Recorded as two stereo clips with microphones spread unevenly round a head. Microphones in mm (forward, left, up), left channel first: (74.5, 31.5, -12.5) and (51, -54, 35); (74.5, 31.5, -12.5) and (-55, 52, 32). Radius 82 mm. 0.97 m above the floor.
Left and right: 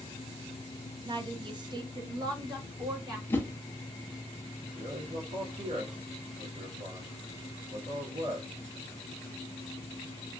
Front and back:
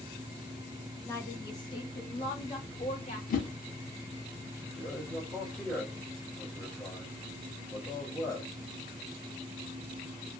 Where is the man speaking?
85° right, 1.5 m.